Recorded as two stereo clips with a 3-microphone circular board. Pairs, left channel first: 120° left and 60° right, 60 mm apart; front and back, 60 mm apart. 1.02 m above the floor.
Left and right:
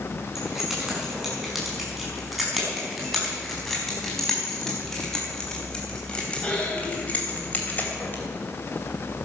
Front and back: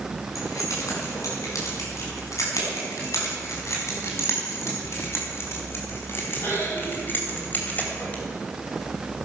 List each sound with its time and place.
0.3 s keys jangling: 25° left, 6.5 m; by 8.2 s 65° left, 3 m